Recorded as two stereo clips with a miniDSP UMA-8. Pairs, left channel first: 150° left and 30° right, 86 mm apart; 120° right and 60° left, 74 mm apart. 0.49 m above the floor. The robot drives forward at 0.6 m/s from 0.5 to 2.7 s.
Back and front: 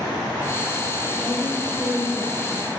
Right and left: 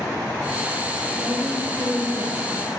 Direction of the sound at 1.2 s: 85° left.